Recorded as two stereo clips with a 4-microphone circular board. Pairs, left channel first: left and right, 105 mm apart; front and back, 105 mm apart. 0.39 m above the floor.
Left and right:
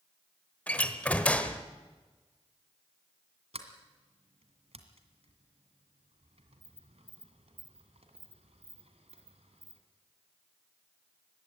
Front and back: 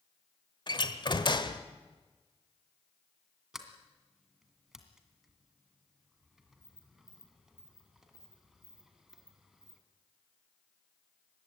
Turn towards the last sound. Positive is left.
turn(degrees=-95)